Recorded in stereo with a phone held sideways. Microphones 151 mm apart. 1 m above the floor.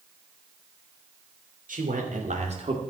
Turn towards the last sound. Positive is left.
turn(degrees=-40)  # may be behind; listen again after turning